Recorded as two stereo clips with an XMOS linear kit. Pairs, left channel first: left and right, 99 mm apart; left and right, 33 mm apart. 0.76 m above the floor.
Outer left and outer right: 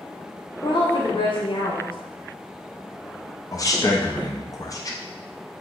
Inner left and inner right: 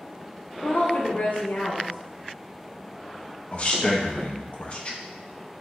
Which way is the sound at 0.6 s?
55° left (ahead or behind).